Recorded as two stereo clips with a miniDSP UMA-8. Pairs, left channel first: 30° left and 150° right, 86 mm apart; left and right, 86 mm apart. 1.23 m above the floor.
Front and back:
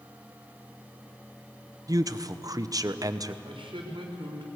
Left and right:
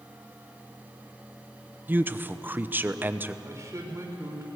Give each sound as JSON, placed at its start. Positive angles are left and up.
{"t": 1.9, "sound": "a man speaking", "azimuth_deg": -150, "distance_m": 0.8}
{"t": 3.4, "sound": "a man speaking", "azimuth_deg": -145, "distance_m": 4.0}